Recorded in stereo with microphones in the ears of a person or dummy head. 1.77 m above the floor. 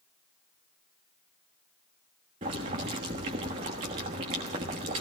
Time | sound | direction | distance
2.4 | boiling | 20° right (ahead or behind) | 1.2 m